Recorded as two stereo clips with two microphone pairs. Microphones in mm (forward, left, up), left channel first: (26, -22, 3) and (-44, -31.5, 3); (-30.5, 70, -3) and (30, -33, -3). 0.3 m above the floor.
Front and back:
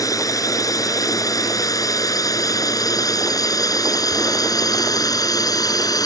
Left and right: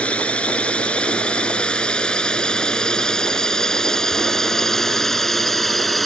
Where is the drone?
40° left; by 6.1 s 30° left.